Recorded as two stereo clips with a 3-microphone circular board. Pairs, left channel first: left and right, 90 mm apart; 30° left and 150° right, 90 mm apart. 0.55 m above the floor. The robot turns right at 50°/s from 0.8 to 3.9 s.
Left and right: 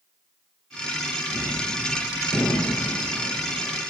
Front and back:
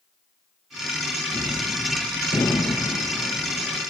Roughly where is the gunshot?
Ahead right.